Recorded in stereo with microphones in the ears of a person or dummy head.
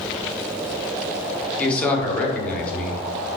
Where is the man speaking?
5° left (ahead or behind), 0.7 m.